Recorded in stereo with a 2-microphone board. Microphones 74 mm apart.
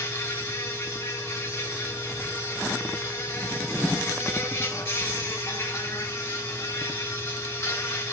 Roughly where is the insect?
Left.